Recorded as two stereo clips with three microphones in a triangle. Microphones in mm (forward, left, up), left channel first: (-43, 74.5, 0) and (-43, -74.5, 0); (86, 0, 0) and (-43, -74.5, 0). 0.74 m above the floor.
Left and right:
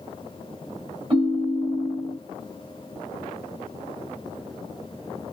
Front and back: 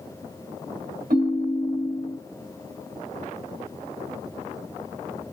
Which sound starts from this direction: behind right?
A ringtone, at 1.1 s.